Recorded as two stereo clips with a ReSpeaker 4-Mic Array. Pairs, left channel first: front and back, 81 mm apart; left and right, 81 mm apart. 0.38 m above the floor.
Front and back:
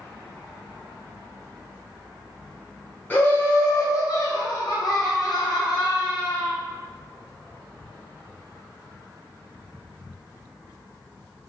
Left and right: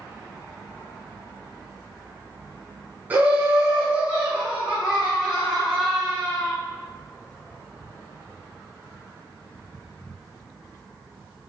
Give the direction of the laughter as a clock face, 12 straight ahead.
2 o'clock.